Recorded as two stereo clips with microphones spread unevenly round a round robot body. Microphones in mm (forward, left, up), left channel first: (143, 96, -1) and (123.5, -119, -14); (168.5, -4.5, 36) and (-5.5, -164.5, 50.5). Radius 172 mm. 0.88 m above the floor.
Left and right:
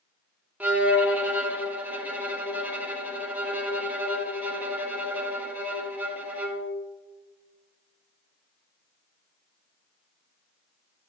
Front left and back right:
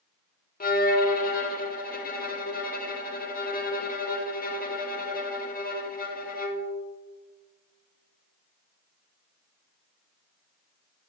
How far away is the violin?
About 1.3 m.